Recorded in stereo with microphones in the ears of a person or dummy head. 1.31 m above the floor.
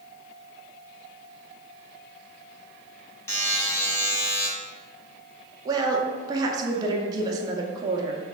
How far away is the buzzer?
About 0.8 m.